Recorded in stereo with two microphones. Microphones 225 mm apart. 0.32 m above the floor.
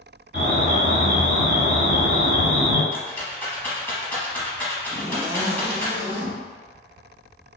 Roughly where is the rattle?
Centre.